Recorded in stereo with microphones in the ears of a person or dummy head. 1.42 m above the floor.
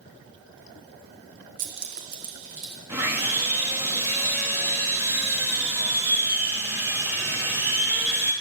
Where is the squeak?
I don't hear a squeak.